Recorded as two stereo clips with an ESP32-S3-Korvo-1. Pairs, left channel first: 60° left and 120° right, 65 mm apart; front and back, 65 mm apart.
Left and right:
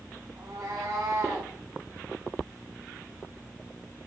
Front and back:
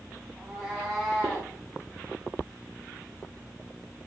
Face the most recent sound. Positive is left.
turn(degrees=-90)